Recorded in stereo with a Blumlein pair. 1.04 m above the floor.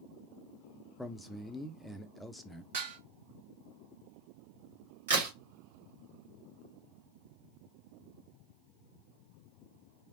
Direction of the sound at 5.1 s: 60° right.